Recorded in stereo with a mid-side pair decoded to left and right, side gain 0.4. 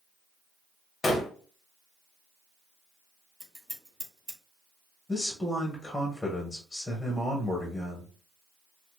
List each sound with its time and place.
1.0 s a gunshot: 35° left, 1.0 m
3.4 s scissors: 20° right, 2.5 m
5.1 s a man speaking: 20° left, 1.4 m